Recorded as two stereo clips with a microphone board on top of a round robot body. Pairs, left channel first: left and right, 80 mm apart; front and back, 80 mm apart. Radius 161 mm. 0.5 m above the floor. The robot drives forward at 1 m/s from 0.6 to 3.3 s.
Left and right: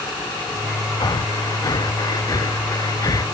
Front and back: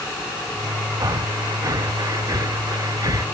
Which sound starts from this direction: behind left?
Breathing, at 1.0 s.